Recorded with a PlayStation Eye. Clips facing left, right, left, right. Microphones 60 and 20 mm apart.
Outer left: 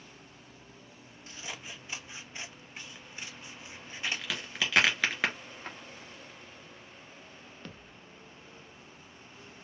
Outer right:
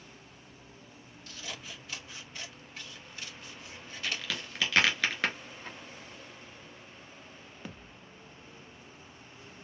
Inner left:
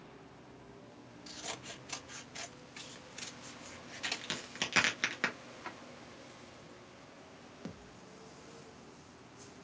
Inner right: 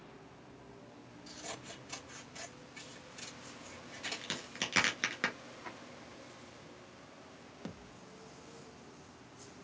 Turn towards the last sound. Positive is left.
turn(degrees=-10)  # may be behind; listen again after turning